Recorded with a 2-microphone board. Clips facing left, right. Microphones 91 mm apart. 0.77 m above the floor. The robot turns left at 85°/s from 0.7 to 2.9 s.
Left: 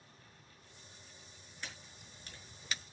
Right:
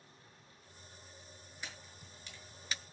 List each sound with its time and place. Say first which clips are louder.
1.6 s a camera shutter: even; 10° right (ahead or behind), 5 m; by 2.8 s 85° left, 5 m